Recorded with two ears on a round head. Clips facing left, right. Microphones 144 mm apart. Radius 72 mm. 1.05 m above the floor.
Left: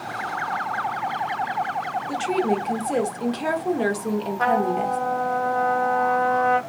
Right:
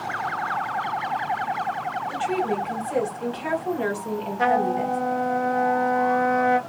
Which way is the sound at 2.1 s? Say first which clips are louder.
Left 3 dB; 50° left (ahead or behind).